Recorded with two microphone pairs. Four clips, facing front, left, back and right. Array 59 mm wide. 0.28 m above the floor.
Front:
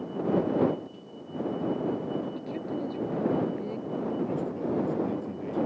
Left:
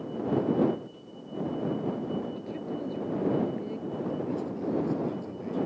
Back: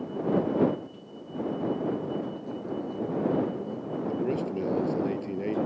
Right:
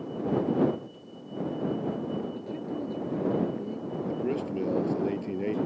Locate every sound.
2.4 s a woman speaking: 10° left; by 4.0 s 25° left
4.1 s a man speaking: 130° right